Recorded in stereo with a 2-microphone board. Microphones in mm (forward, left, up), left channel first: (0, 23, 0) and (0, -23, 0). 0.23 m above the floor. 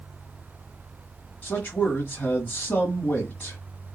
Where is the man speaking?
35° left (ahead or behind), 1.6 m.